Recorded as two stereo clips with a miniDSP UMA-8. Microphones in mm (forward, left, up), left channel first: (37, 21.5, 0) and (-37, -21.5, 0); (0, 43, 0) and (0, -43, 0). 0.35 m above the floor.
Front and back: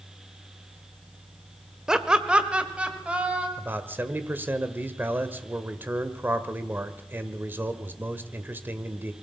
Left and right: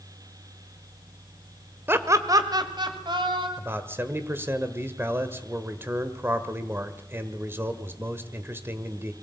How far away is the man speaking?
About 1.5 m.